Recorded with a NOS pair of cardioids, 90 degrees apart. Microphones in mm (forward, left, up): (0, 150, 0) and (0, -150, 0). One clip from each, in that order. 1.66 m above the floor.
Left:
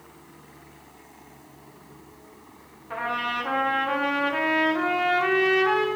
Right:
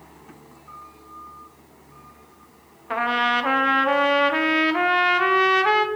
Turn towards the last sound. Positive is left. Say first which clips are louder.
# right 7 dB
turn(degrees=-55)